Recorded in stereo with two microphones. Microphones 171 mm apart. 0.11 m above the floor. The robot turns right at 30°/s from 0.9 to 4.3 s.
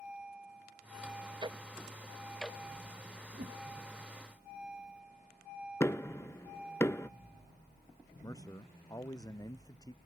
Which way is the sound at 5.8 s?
15° left (ahead or behind).